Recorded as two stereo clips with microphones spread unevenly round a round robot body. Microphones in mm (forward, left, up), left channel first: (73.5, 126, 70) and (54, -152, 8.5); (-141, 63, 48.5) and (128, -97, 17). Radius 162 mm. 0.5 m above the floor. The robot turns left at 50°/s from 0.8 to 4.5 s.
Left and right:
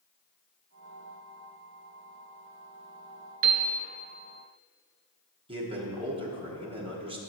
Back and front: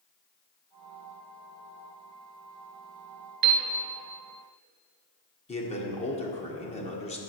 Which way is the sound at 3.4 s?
50° right.